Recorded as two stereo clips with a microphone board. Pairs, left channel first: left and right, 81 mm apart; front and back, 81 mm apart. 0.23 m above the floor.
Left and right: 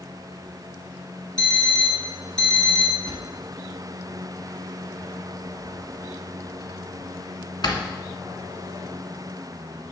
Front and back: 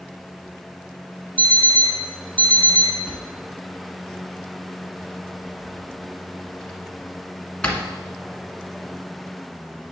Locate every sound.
1.4 s an alarm clock: 170° left, 1.9 m
3.1 s a drawer: 75° left, 1.5 m